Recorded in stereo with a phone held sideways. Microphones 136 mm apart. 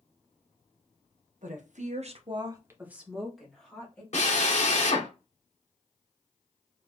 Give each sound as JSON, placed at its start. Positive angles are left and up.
{"t": 1.4, "sound": "a woman speaking", "side_deg": -65, "distance_m": 1.0}
{"t": 4.1, "sound": "a drill", "side_deg": 55, "distance_m": 1.2}